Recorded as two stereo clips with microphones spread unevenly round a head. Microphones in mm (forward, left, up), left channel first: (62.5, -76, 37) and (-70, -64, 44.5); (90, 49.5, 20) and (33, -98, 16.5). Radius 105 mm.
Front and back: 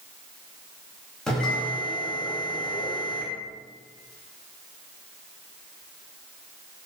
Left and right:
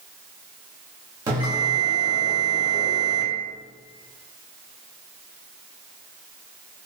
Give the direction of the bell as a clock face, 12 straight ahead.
3 o'clock.